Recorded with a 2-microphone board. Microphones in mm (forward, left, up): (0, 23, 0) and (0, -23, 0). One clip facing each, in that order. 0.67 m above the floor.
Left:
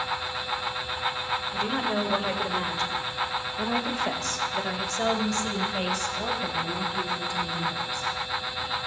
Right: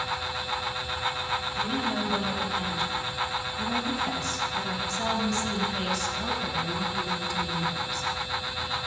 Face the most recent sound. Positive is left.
turn(degrees=25)  # may be behind; listen again after turning